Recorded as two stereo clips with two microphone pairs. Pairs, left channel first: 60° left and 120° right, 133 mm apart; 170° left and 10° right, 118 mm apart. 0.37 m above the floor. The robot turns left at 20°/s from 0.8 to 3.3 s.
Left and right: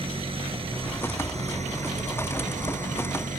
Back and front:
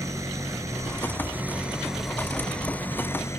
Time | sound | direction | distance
0.0 | an engine running | 75° right | ?